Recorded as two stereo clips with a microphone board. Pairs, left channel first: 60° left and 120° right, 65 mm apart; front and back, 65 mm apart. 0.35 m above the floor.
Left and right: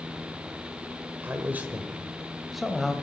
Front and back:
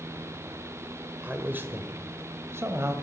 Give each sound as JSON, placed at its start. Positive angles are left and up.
{"t": 1.2, "sound": "a man speaking", "azimuth_deg": -140, "distance_m": 1.3}